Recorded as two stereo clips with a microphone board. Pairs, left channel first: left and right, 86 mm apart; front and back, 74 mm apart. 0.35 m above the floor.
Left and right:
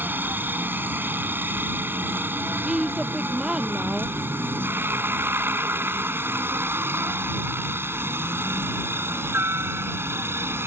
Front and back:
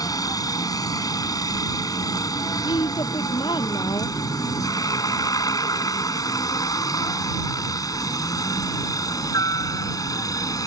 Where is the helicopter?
25° right; by 10.7 s 30° right.